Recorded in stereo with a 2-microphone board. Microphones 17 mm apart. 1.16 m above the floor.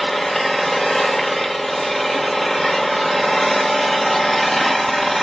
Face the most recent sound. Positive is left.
turn(degrees=15)  # may be behind; listen again after turning